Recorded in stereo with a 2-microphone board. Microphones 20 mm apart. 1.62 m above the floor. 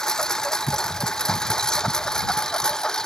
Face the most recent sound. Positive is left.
turn(degrees=35)  # may be behind; listen again after turning